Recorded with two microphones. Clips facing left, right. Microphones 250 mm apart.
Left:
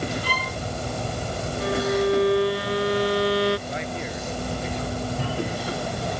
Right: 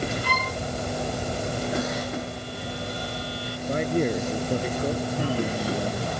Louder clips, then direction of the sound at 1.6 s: Left 10 dB; 80° left.